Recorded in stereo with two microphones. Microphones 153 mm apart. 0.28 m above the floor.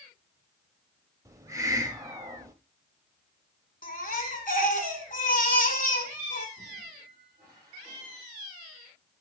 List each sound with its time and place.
1.2 s a hiss: 20° right (ahead or behind), 0.8 m
3.8 s a baby crying: 65° left (ahead or behind), 1.6 m
6.6 s a squeak: 20° right (ahead or behind), 6.5 m